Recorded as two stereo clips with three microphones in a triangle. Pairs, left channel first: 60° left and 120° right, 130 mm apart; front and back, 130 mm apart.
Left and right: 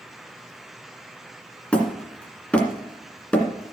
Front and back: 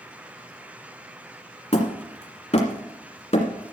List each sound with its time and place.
1.7 s hammering: 20° right, 2.0 m